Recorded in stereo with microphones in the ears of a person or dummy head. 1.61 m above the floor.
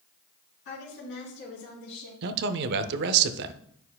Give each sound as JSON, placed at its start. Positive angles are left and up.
{"t": 0.7, "sound": "a woman speaking", "side_deg": 60, "distance_m": 3.5}
{"t": 2.2, "sound": "a man speaking", "side_deg": -55, "distance_m": 0.6}